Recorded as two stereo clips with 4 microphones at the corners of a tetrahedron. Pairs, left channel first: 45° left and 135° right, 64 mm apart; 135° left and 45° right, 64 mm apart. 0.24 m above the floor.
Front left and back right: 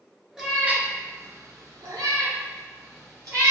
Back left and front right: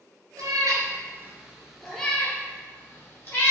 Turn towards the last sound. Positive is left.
turn(degrees=-170)